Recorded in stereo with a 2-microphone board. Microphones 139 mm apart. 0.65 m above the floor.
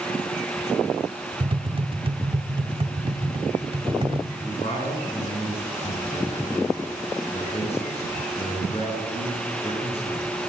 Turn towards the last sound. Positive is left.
turn(degrees=45)  # may be behind; listen again after turning